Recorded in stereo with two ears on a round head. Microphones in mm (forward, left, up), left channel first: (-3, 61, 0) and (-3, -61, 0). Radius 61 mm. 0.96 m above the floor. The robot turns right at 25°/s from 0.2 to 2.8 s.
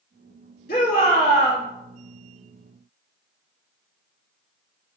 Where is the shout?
70° left (ahead or behind), 1.6 m; by 1.6 s 65° left (ahead or behind), 1.6 m.